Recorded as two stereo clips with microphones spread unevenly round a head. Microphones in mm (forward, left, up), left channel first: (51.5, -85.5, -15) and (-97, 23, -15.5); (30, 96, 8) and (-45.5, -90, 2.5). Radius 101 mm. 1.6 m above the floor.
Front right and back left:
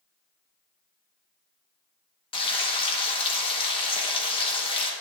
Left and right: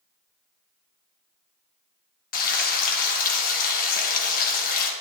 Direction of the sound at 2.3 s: 25° left.